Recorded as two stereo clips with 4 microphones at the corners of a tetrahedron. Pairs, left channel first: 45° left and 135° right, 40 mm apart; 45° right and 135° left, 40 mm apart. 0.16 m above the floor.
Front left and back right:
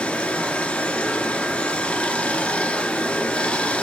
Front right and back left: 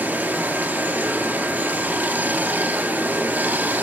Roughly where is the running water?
Left.